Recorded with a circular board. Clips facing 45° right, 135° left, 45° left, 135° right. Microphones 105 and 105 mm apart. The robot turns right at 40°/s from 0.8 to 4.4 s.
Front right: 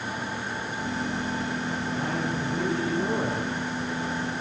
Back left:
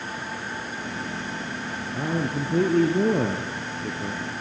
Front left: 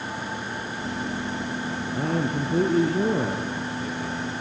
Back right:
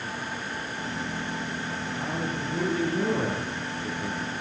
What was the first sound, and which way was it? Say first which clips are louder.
A man speaking: back left 5 dB, front left 7 dB; 65° left.